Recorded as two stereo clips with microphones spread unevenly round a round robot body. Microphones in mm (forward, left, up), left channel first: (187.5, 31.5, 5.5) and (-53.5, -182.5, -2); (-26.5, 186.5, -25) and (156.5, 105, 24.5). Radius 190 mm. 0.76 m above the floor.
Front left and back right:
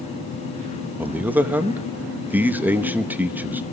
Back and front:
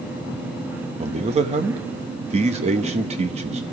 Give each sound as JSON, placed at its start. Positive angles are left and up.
{"t": 1.0, "sound": "a man speaking", "azimuth_deg": -65, "distance_m": 0.9}